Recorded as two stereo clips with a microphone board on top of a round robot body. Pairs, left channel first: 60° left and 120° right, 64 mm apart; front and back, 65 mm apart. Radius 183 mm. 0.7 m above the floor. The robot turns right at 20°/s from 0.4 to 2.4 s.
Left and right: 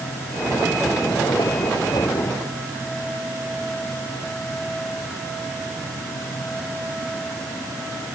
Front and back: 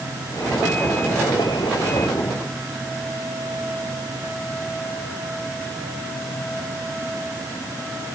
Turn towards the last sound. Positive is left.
No sound to turn to.